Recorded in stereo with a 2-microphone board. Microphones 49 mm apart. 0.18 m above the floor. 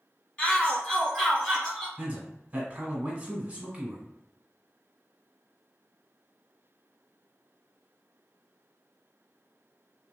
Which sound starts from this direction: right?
A man speaking, at 2.0 s.